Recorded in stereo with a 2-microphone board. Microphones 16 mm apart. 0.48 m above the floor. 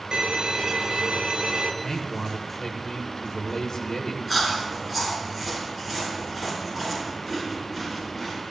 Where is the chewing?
5° right (ahead or behind), 5 m.